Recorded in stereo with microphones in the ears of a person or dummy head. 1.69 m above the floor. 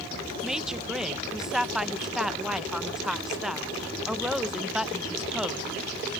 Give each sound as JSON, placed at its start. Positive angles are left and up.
{"t": 0.4, "sound": "a woman speaking", "side_deg": -5}